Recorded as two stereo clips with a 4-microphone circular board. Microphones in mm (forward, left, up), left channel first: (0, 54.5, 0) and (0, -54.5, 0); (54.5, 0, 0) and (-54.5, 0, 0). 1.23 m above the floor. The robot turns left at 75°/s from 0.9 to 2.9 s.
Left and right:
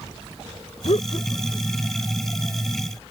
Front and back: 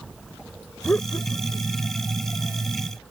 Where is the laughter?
70° left; by 1.8 s straight ahead.